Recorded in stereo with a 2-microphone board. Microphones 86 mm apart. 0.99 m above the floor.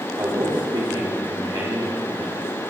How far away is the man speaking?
About 2.5 m.